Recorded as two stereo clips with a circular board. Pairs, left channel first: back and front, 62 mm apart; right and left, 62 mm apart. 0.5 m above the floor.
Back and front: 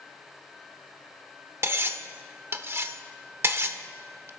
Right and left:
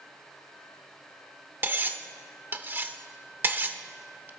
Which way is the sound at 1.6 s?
40° left.